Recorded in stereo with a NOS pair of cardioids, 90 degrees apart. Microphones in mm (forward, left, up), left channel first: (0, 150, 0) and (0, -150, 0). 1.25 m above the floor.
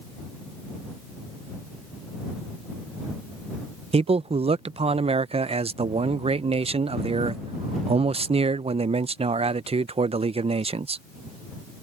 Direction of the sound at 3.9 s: 20° right.